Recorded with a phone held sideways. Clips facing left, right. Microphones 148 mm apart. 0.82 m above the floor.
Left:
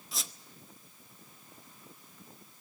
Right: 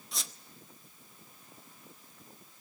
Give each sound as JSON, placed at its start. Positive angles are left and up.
{"t": 0.1, "sound": "a squeak", "side_deg": 0, "distance_m": 0.9}